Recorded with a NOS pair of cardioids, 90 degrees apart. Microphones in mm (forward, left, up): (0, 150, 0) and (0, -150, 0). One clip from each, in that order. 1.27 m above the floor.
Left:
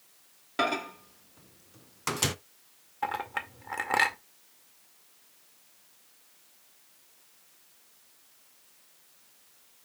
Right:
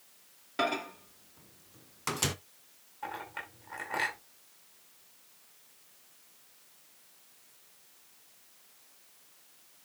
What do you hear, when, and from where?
0.6 s a microwave: 15° left, 0.6 m
3.0 s a clink: 70° left, 2 m